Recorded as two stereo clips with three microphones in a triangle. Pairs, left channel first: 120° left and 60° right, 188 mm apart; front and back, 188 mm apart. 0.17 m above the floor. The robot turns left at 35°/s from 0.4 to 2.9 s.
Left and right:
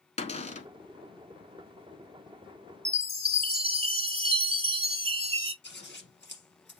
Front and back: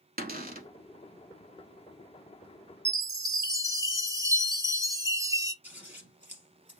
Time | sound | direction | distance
0.2 | a cupboard door | 165° left | 0.8 m
2.9 | a chime | 110° right | 0.5 m
5.6 | scissors | 100° left | 2.5 m